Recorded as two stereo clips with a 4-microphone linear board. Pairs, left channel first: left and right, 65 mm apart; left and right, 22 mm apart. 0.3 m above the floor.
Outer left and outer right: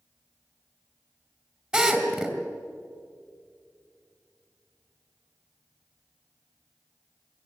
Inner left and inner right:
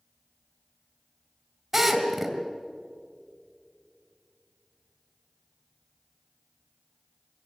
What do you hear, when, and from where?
1.7 s a drill: 15° right (ahead or behind), 2.5 m